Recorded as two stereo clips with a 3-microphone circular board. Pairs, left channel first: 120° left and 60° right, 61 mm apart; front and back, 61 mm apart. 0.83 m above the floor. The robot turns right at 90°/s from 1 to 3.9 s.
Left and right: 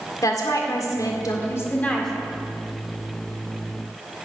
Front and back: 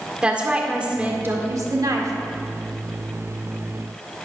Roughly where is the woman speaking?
Left.